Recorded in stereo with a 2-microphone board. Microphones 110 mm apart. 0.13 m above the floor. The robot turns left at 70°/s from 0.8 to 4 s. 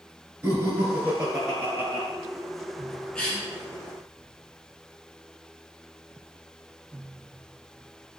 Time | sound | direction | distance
0.4 | laughter | 140° right | 1.4 m
3.1 | a cough | 10° left (ahead or behind) | 1.1 m